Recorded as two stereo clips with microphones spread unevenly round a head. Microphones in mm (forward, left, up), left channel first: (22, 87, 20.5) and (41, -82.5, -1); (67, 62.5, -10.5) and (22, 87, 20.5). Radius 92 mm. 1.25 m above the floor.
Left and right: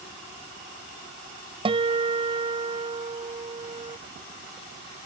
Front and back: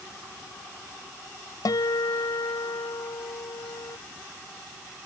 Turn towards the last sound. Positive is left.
turn(degrees=-20)